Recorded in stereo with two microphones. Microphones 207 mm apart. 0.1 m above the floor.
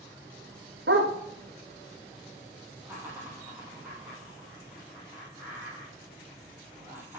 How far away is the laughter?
About 4 m.